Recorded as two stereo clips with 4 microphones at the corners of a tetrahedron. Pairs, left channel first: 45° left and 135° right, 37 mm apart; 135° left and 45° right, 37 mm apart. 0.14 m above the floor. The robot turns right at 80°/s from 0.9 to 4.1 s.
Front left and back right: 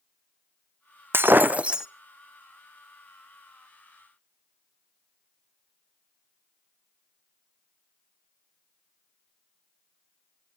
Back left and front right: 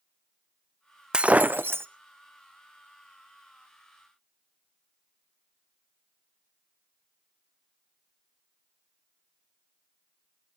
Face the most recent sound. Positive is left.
turn(degrees=120)